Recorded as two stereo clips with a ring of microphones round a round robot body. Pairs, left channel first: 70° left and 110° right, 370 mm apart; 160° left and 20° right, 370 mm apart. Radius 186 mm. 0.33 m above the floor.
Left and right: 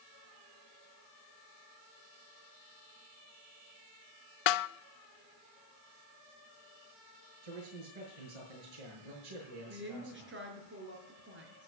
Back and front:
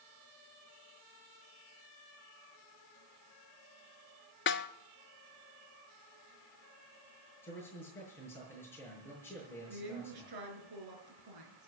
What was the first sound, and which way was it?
A snare drum, 95° left.